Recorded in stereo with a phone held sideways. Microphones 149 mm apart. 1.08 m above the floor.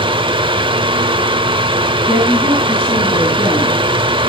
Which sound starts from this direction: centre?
A woman speaking, at 2.1 s.